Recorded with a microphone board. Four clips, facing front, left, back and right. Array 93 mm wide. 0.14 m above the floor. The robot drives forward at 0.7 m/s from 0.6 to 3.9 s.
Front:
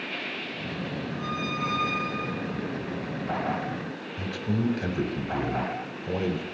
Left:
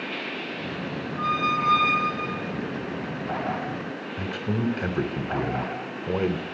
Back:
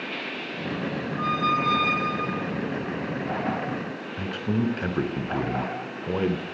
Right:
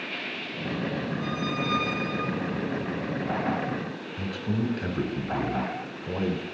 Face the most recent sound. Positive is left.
turn(degrees=150)